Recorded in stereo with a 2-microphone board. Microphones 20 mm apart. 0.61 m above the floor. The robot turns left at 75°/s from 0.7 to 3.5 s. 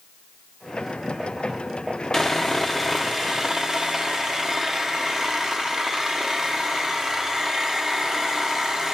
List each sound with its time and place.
2.1 s sawing: 65° left, 0.8 m; by 8.9 s 35° right, 0.8 m